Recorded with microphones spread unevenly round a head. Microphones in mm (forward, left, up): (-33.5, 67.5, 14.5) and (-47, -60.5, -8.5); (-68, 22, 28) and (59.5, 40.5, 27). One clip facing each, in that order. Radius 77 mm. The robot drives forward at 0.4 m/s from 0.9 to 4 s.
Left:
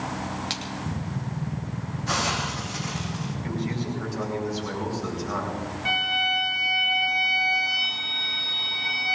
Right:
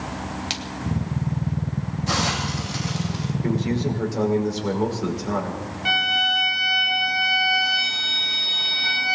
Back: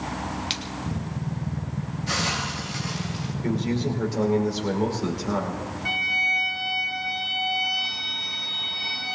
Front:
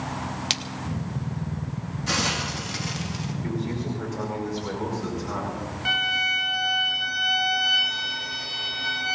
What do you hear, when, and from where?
0.5 s a splash: 25° right, 0.8 m
2.1 s a hiss: 30° right, 2.5 m; by 3.3 s 40° right, 2 m
3.4 s a man speaking: 110° right, 5 m
5.8 s a violin: 40° right, 1.2 m